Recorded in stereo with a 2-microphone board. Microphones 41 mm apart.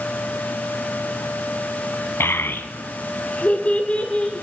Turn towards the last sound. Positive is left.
turn(degrees=20)  # may be behind; listen again after turning